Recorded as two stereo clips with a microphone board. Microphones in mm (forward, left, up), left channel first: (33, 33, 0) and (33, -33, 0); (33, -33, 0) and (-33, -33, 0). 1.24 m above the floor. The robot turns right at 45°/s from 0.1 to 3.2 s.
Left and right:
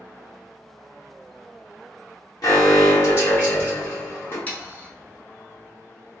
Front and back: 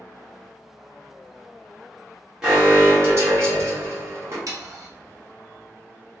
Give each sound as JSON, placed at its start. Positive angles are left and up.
{"t": 2.4, "sound": "an alarm", "azimuth_deg": 100, "distance_m": 1.2}
{"t": 4.5, "sound": "sawing", "azimuth_deg": 155, "distance_m": 0.8}